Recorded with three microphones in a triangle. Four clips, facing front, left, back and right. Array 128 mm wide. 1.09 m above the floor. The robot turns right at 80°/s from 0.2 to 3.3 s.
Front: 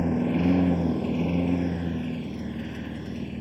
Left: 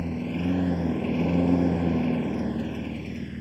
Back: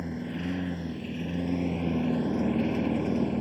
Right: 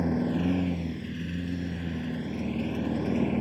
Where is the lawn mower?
25° right; by 3.4 s 135° right.